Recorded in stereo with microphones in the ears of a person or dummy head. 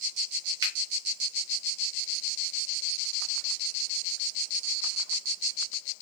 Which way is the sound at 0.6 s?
30° right (ahead or behind).